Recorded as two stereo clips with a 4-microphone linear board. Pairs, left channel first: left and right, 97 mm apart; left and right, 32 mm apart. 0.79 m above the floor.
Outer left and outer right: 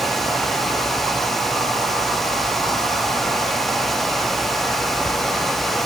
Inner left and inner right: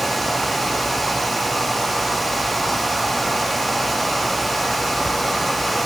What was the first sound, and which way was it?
Only background noise.